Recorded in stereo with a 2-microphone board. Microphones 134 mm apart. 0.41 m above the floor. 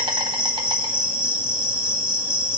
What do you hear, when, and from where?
0.0 s an insect: 35° right (ahead or behind), 1.3 m